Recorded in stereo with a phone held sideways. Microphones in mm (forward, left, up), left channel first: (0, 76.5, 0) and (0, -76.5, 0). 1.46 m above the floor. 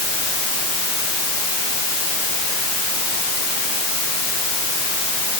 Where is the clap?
I don't hear a clap.